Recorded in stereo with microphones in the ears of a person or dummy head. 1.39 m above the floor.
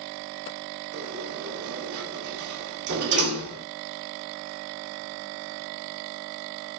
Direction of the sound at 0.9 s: 85° right.